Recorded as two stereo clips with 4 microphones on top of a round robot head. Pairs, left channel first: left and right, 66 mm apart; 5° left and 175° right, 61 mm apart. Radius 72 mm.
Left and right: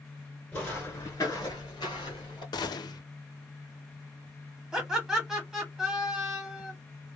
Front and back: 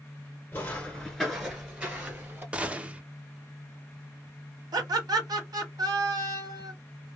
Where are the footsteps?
35° left, 1.0 m; by 2.4 s 130° left, 1.4 m.